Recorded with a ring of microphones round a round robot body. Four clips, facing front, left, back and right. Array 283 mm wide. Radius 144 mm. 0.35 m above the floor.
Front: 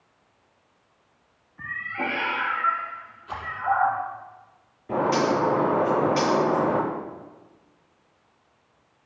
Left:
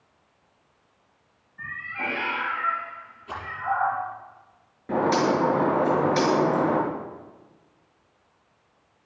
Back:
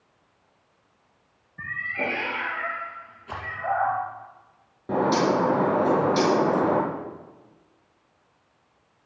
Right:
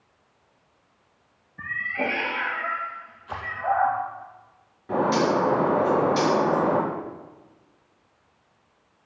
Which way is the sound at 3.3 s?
135° left.